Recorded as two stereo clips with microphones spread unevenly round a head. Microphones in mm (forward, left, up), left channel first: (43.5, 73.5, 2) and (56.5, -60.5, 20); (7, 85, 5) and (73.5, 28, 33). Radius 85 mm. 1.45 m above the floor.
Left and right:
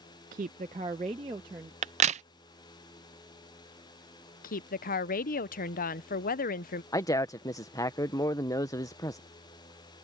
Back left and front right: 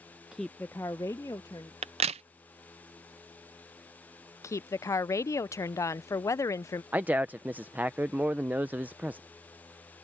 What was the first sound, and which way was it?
A woman speaking, 130° right.